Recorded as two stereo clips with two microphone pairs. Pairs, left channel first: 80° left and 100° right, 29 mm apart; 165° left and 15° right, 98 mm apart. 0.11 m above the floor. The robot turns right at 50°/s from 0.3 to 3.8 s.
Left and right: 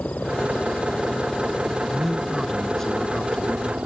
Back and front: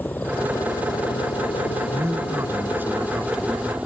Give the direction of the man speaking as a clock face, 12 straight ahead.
1 o'clock.